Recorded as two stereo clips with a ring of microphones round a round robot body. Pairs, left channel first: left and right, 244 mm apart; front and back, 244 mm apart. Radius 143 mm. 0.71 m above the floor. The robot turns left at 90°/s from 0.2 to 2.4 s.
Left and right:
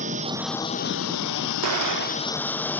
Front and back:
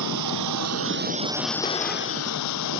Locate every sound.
0.0 s a lawn mower: 155° right; by 2.8 s 5° left
1.6 s an explosion: 65° right; by 2.4 s 135° right